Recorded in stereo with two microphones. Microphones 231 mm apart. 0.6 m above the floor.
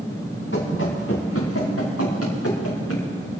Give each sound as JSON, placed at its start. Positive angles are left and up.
{"t": 0.5, "sound": "running footsteps", "side_deg": 55, "distance_m": 4.0}